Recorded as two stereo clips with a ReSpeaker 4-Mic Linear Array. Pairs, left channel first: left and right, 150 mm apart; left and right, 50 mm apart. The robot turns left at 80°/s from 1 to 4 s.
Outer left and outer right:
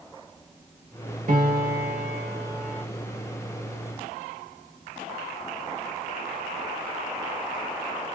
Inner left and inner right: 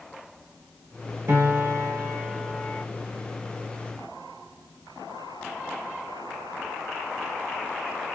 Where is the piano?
60° right, 0.8 m; by 2.8 s 175° left, 0.8 m.